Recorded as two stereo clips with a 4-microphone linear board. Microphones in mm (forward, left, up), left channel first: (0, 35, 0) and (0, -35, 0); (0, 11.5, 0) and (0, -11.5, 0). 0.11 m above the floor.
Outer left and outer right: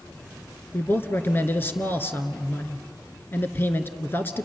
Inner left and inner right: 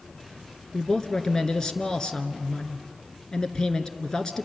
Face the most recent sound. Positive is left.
turn(degrees=30)  # may be behind; listen again after turning